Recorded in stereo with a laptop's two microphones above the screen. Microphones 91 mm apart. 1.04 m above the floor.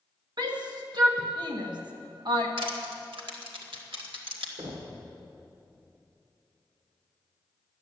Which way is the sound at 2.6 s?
80° right.